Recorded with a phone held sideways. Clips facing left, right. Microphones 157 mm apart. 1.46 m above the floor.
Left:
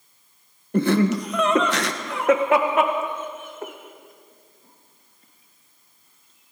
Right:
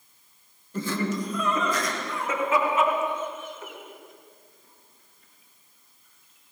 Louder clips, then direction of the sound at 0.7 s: Left 9 dB; 65° left (ahead or behind).